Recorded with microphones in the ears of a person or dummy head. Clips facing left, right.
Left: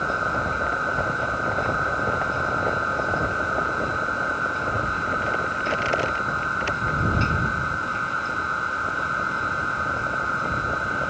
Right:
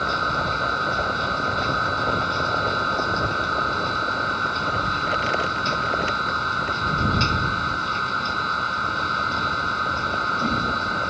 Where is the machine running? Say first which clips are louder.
Even; 55° right (ahead or behind).